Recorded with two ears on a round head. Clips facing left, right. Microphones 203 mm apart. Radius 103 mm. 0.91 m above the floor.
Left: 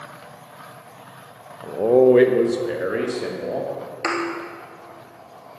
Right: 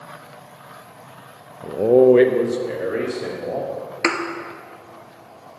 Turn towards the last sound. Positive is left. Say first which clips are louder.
# right 3 dB
turn(degrees=-40)  # may be behind; listen again after turning